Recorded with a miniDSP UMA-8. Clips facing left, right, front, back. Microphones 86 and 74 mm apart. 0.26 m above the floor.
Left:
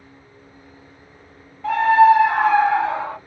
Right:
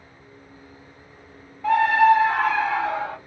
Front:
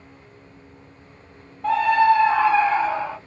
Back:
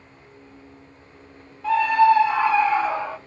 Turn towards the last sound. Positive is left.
turn(degrees=55)